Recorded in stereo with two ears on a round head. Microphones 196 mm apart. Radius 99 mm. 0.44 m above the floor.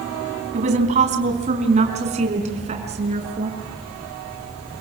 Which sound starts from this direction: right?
A woman speaking, at 0.5 s.